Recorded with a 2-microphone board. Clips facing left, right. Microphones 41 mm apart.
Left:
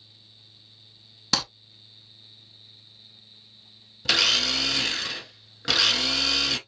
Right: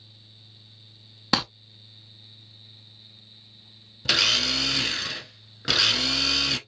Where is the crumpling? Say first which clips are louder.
Right 3 dB; 15° right (ahead or behind), 0.6 m.